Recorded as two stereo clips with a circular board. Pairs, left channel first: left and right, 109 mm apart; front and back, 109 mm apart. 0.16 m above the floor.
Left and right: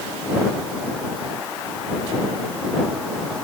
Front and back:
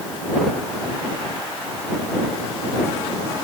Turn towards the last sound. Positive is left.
No sound to turn to.